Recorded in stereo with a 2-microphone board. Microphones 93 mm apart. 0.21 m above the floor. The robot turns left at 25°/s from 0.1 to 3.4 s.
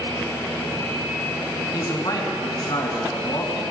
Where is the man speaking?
120° left, 2 m; by 3.7 s 80° left, 2 m.